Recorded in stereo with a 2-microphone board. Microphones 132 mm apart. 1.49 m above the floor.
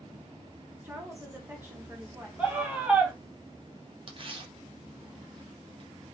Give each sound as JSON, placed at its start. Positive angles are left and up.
{"t": 0.8, "sound": "a woman speaking", "side_deg": -15, "distance_m": 1.2}
{"t": 2.4, "sound": "a scream", "side_deg": -5, "distance_m": 1.1}
{"t": 4.1, "sound": "tearing paper", "side_deg": -40, "distance_m": 0.5}